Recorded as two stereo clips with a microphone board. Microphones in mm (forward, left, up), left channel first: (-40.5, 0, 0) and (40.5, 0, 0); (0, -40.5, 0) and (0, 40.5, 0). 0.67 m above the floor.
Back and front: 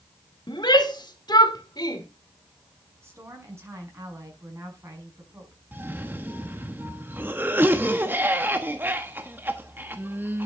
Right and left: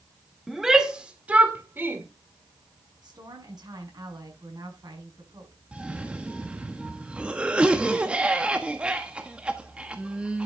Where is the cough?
30° left, 1.2 m.